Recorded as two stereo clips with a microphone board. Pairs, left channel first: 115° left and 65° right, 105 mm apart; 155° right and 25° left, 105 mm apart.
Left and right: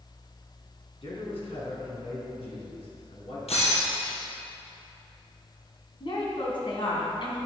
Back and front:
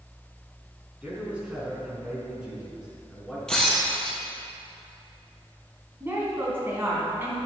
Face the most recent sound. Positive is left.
turn(degrees=90)